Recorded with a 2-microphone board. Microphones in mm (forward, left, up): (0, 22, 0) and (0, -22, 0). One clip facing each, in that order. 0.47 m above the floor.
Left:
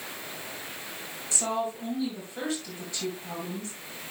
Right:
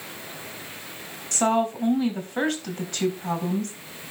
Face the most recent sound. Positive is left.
turn(degrees=-60)  # may be behind; listen again after turning